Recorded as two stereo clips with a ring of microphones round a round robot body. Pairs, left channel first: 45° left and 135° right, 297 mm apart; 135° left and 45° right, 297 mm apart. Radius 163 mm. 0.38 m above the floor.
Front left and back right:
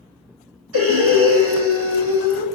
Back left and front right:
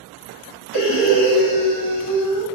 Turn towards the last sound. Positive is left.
turn(degrees=175)